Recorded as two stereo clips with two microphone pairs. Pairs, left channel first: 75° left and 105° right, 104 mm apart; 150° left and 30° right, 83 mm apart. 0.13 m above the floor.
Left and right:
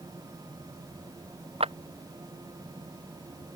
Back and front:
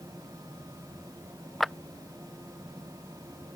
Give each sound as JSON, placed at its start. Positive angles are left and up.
{"t": 1.6, "sound": "a clap", "azimuth_deg": -125}